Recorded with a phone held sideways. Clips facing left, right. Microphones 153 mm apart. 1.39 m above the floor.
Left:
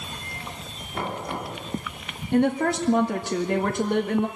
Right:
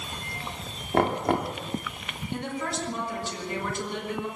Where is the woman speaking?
60° left (ahead or behind), 1.8 m.